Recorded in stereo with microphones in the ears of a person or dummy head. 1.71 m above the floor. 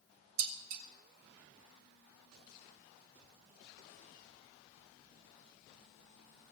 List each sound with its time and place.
0.4 s dishes clattering: 50° right (ahead or behind), 1.5 m